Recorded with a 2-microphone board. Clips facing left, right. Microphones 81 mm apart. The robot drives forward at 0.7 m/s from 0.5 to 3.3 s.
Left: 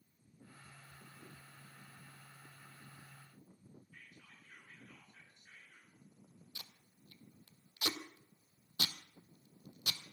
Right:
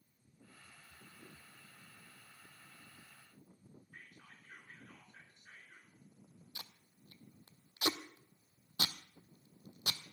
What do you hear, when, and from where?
3.9 s whispering: 45° right (ahead or behind), 3 m
6.5 s tape being pulled: 35° right (ahead or behind), 0.8 m